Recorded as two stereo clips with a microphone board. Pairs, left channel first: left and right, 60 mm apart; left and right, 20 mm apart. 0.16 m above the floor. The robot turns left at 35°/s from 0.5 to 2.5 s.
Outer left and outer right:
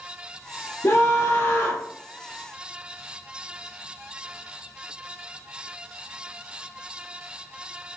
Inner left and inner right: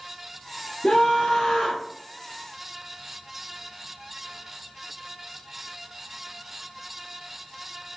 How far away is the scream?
About 3 m.